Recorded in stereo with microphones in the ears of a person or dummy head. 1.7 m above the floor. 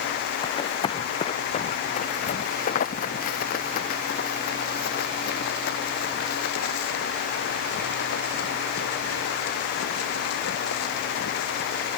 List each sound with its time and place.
0.4 s running footsteps: 20° left (ahead or behind); by 11.9 s 75° left (ahead or behind)